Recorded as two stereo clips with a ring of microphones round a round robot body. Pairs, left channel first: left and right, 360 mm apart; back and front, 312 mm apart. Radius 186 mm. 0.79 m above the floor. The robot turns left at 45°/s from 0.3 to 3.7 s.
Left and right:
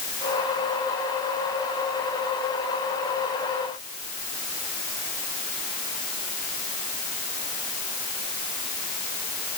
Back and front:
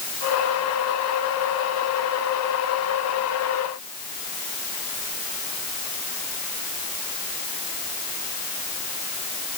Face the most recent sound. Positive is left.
No sound to turn to.